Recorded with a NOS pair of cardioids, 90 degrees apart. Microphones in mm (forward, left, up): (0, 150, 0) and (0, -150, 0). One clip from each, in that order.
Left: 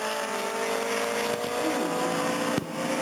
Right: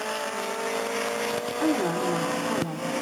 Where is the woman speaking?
65° right, 3 m.